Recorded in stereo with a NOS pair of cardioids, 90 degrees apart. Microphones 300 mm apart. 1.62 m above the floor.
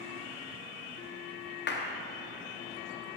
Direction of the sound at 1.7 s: 40° left.